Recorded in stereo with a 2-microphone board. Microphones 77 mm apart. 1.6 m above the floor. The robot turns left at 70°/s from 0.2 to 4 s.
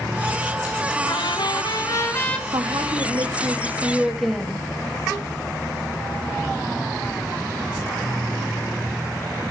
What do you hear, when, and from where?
1.1 s a trumpet: 110° left, 1.9 m; by 2.4 s 15° left, 1.9 m
2.5 s a woman speaking: 70° right, 2 m; by 4.7 s 175° right, 2 m